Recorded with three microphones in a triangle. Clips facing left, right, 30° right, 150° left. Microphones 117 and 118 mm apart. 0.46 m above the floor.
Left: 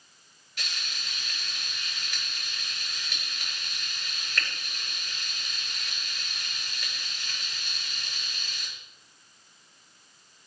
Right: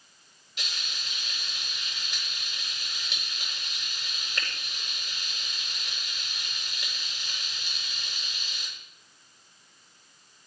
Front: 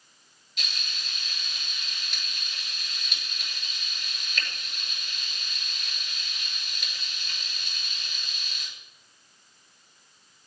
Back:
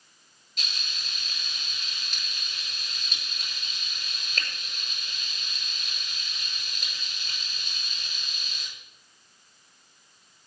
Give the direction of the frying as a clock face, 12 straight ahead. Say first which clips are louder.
Left 1 dB, even; 5 o'clock.